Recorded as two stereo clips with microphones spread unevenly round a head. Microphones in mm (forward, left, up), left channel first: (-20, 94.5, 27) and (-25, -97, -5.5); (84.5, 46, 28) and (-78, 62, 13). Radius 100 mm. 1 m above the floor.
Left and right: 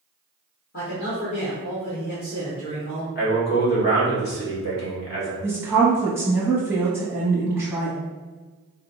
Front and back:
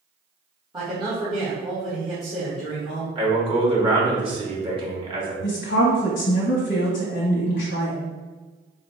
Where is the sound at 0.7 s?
115° left, 1.4 m.